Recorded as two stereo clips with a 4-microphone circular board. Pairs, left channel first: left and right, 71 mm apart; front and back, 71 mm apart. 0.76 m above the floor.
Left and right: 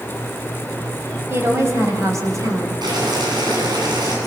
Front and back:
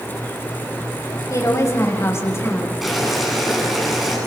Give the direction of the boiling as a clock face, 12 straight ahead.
3 o'clock.